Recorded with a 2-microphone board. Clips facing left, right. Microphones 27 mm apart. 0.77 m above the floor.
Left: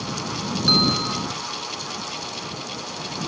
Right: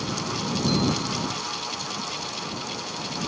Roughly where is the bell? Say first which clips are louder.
Left 8 dB; left.